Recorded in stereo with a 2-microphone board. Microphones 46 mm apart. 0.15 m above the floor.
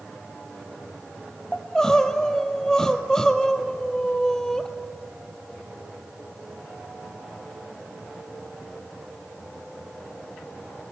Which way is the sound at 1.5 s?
15° left (ahead or behind).